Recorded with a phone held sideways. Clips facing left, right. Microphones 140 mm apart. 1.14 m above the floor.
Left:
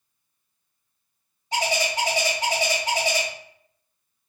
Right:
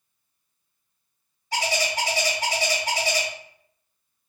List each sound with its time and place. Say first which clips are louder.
1.5 s a bird: left 1 dB; 20° left (ahead or behind), 0.8 m